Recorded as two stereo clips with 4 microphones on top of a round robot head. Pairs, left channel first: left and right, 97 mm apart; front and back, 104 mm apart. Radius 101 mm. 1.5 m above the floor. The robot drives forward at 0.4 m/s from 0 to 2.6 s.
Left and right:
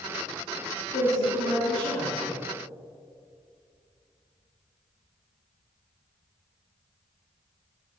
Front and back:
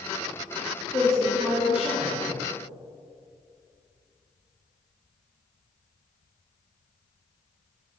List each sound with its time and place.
0.9 s a woman speaking: 85° left, 1.3 m; by 2.4 s 105° left, 1.4 m